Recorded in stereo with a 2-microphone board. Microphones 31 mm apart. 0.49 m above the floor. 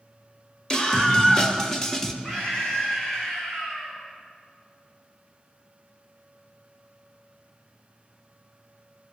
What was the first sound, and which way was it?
A scream, 20° left (ahead or behind).